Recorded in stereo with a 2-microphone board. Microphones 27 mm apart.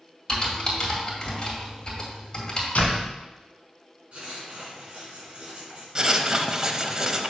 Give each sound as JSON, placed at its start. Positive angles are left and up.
{"t": 0.3, "sound": "typing on a keyboard", "side_deg": 30, "distance_m": 1.7}
{"t": 2.8, "sound": "a door slam", "side_deg": 65, "distance_m": 2.0}
{"t": 4.1, "sound": "writing", "side_deg": -40, "distance_m": 3.0}
{"t": 6.0, "sound": "writing", "side_deg": -25, "distance_m": 0.5}